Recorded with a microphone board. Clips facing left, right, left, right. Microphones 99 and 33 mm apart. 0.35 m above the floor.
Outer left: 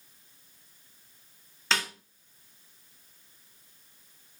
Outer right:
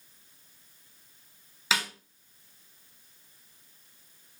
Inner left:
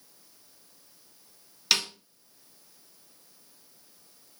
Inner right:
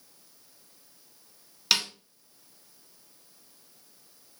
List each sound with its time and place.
1.7 s a snare drum: 5° right (ahead or behind), 1.1 m